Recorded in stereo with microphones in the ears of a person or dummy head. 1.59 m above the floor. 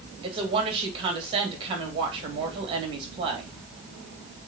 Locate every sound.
0.2 s a woman speaking: 30° right (ahead or behind), 2.5 m